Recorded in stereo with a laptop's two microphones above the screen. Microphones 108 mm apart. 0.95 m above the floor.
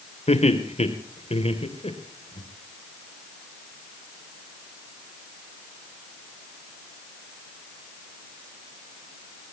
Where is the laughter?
85° left, 3 m; by 2.4 s 60° left (ahead or behind), 3.5 m.